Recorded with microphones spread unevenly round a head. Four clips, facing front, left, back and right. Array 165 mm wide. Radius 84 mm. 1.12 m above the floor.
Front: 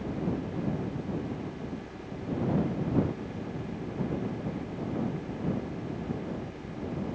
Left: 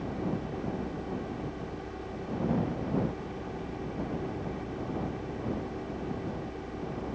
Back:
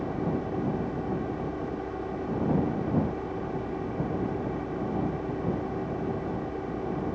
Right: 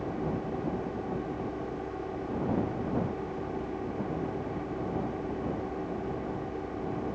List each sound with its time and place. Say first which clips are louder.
0.0 s a fan: right 1 dB, back 3 dB; 155° right